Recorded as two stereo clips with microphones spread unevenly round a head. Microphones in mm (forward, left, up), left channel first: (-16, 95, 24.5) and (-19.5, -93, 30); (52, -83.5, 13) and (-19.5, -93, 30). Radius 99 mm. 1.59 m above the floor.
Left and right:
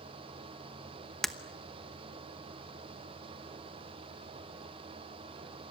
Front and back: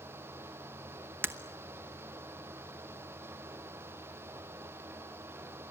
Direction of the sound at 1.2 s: Straight behind.